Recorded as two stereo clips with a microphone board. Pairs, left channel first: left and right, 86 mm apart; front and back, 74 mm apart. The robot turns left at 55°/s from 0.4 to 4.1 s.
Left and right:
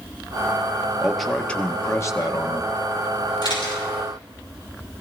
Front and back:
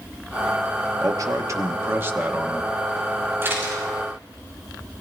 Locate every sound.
1.0 s a man speaking: 170° right, 1.1 m; by 2.7 s 95° left, 1.1 m
3.4 s a camera shutter: 125° left, 6.5 m; by 3.8 s 105° left, 6.5 m